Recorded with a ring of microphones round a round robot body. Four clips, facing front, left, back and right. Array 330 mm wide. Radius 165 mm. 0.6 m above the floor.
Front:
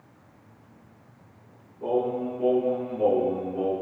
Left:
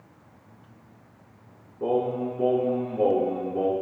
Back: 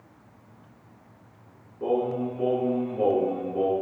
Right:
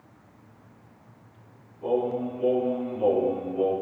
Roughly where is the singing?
Behind left.